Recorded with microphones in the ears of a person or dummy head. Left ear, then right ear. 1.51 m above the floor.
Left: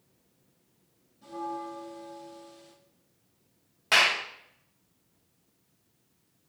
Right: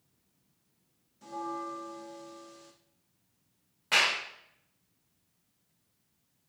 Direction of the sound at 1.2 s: 60° right (ahead or behind).